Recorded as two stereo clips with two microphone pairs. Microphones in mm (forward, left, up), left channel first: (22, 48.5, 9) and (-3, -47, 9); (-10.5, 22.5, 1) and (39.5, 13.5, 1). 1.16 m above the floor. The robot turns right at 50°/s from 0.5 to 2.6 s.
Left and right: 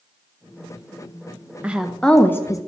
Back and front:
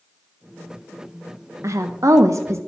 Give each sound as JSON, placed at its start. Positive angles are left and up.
{"t": 1.6, "sound": "a woman speaking", "azimuth_deg": -25, "distance_m": 0.5}